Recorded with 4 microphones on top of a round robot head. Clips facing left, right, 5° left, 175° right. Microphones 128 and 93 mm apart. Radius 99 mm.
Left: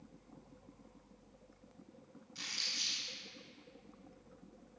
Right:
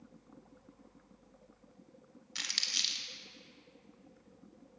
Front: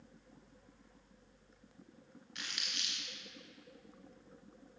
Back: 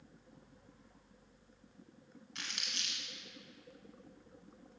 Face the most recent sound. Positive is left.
turn(degrees=-110)